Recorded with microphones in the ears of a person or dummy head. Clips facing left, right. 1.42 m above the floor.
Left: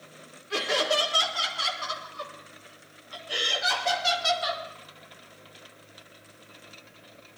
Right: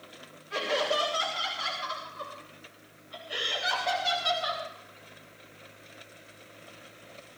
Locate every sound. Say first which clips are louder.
0.5 s laughter: left 2 dB; 70° left (ahead or behind), 4.5 m; by 4.6 s 60° left (ahead or behind), 2.5 m